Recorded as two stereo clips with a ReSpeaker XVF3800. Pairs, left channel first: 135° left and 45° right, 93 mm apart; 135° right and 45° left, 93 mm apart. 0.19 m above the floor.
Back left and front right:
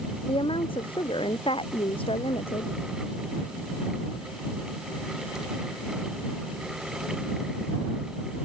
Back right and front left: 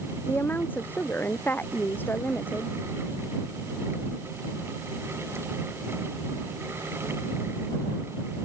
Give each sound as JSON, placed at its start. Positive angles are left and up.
{"t": 0.3, "sound": "a woman speaking", "azimuth_deg": 155}